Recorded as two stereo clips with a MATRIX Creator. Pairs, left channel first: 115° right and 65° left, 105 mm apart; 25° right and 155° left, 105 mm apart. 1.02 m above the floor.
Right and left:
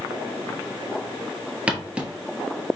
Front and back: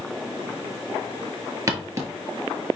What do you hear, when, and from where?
1.7 s footsteps: 135° left, 1.1 m